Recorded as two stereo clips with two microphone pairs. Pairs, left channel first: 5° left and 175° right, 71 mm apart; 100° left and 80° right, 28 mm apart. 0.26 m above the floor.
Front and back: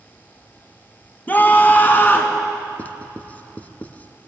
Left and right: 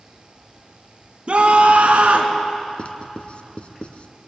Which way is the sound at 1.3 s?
50° right.